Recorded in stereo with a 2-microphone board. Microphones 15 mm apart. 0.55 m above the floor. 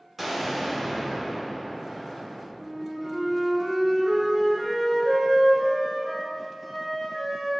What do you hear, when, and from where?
0.2 s an explosion: 15° right (ahead or behind), 1.6 m
2.6 s a flute: 5° right (ahead or behind), 2.5 m